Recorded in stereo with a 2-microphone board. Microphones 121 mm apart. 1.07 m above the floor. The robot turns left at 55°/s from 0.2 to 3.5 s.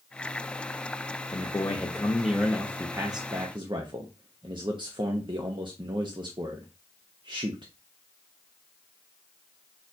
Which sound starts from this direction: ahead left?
A man speaking, at 1.3 s.